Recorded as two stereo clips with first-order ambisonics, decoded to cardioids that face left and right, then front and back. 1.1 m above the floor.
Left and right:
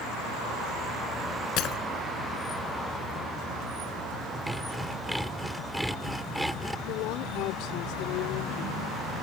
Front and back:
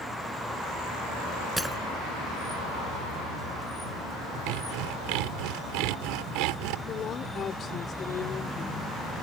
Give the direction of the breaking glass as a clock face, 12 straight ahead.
9 o'clock.